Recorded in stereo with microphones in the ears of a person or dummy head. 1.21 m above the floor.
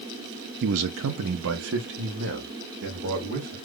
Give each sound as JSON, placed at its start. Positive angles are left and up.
{"t": 0.6, "sound": "a man speaking", "side_deg": -55, "distance_m": 0.6}